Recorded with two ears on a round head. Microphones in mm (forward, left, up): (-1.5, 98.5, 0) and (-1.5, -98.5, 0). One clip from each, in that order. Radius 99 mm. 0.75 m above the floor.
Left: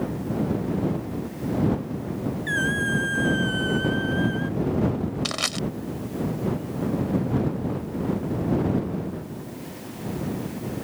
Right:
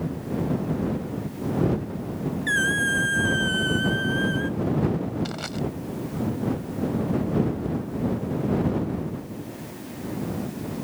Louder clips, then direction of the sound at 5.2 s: Left 6 dB; 60° left (ahead or behind).